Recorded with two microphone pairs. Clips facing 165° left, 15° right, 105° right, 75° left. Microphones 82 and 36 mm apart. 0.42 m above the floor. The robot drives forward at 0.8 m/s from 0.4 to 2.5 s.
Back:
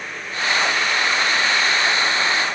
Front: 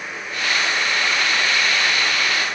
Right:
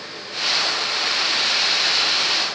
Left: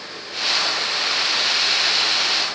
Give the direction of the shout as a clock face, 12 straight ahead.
No shout in this recording.